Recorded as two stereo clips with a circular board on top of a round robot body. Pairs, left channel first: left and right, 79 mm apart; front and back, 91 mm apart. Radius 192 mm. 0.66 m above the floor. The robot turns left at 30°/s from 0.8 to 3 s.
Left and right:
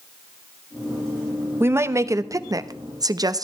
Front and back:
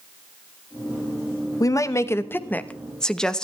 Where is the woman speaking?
40° right, 1.2 m; by 3.4 s 80° right, 1.2 m.